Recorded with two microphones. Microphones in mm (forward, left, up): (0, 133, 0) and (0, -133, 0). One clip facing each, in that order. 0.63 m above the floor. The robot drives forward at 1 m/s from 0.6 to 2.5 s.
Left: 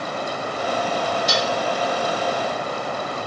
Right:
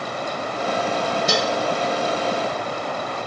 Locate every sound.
1.3 s dishes clattering: 55° right (ahead or behind), 1.3 m; by 1.6 s 50° right (ahead or behind), 1.5 m